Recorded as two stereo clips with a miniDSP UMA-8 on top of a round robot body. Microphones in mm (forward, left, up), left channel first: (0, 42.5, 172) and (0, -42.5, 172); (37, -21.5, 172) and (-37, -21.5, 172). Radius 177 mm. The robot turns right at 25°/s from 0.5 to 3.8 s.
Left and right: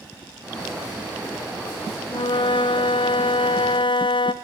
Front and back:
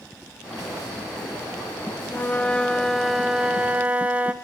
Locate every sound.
2.1 s a flute: 65° left, 1.2 m; by 4.3 s 105° left, 1.2 m